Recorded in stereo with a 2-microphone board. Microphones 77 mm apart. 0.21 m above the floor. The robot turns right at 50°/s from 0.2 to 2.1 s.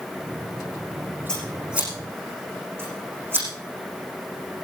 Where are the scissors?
10° left (ahead or behind), 9 m; by 3.5 s 30° right (ahead or behind), 9 m.